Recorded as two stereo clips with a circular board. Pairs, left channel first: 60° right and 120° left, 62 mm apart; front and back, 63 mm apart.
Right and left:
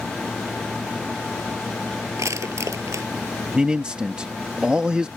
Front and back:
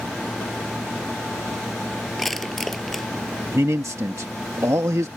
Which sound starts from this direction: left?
Crushing, at 2.2 s.